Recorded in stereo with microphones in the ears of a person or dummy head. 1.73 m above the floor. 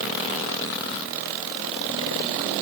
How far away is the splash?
I don't hear a splash.